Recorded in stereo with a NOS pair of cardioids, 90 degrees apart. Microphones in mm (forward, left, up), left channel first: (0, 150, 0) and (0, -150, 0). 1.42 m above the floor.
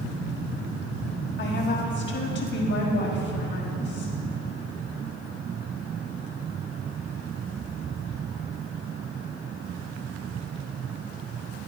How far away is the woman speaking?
About 2.5 m.